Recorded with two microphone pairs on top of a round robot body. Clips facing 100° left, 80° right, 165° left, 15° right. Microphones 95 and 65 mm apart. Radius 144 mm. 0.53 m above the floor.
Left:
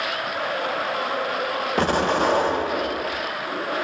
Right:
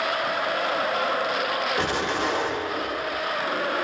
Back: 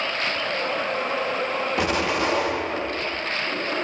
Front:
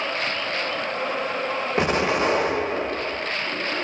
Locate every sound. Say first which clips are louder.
1.8 s an explosion: left 5 dB, front 3 dB; 50° left, 0.8 m